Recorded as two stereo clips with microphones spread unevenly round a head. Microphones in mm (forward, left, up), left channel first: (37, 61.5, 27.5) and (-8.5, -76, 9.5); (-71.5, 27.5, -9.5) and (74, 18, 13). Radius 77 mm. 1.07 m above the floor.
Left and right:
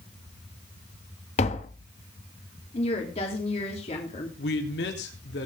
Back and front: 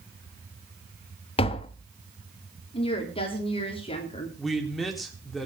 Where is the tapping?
125° left, 1.1 m.